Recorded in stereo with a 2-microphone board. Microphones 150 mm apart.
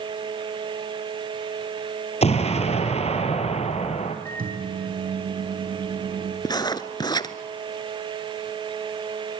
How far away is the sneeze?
I don't hear a sneeze.